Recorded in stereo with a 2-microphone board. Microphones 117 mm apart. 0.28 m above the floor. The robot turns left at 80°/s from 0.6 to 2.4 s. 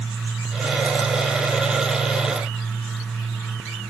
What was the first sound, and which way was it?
Only background noise.